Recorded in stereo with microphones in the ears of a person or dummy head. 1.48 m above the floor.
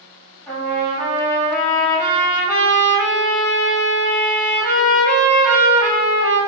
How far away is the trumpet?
About 1.7 m.